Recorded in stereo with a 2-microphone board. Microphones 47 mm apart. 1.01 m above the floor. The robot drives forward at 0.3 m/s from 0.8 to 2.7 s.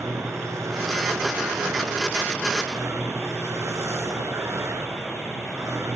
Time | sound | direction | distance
0.0 | a vehicle | 80° right | ?